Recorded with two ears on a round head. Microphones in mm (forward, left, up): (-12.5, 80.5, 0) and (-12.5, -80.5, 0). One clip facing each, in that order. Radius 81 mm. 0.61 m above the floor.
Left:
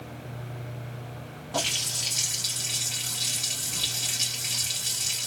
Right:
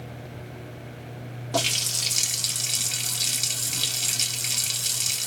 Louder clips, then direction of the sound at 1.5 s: Right 4 dB; 55° right (ahead or behind).